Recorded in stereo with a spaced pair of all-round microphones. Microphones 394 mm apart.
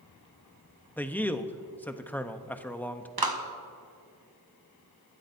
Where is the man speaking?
5° left (ahead or behind), 0.8 m.